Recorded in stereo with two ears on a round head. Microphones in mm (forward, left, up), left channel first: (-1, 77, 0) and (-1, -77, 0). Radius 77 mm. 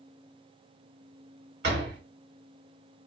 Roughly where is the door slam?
Right.